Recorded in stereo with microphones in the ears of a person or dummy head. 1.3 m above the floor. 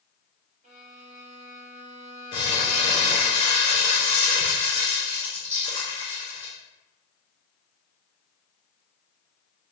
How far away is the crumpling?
About 1.5 m.